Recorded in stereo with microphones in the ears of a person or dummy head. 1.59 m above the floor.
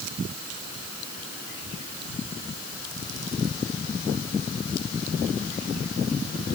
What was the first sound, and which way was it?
Only background noise.